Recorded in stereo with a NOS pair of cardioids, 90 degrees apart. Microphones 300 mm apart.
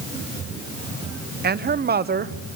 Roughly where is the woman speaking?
Ahead right.